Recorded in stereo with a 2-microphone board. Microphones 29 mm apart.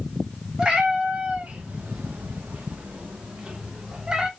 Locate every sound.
0.6 s a cat meowing: 30° right (ahead or behind), 1.3 m; by 4.3 s 35° right (ahead or behind), 1.4 m